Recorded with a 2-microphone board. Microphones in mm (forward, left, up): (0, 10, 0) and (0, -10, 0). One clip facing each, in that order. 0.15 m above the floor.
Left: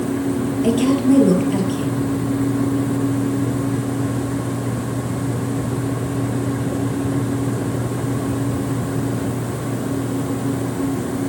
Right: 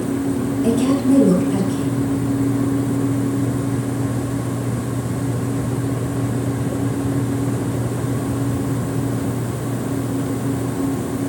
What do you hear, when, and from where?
0.6 s a woman speaking: 30° left (ahead or behind), 3 m